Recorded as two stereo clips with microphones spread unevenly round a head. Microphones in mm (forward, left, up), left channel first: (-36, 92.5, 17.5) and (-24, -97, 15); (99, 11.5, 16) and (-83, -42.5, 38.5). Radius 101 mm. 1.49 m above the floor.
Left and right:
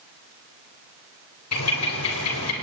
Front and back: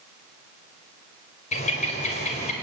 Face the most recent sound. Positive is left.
turn(degrees=75)